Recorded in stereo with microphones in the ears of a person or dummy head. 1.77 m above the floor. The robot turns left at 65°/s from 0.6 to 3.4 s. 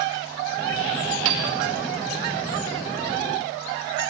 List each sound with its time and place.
1.2 s a piano: 70° right (ahead or behind), 3 m